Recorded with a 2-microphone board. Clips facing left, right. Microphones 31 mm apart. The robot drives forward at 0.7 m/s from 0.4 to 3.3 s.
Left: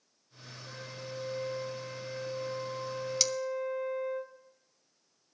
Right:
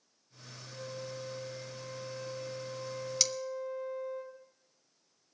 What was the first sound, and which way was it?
A flute, 80° left.